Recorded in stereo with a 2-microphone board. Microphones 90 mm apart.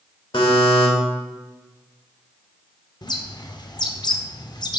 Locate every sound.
0.3 s a buzzer: 70° left (ahead or behind), 1.8 m
3.0 s a bird: 50° left (ahead or behind), 0.6 m